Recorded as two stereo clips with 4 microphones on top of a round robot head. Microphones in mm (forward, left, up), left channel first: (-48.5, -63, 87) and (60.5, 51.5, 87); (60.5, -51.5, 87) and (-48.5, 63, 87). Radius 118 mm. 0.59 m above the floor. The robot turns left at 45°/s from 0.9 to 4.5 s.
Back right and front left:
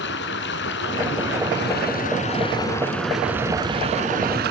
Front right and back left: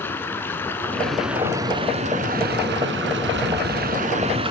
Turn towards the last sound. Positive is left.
turn(degrees=75)